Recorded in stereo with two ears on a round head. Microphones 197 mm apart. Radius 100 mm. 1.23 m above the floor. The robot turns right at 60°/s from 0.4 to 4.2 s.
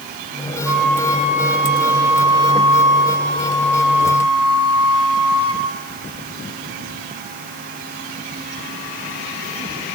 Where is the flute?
10° right, 4 m; by 5.6 s 160° right, 4 m.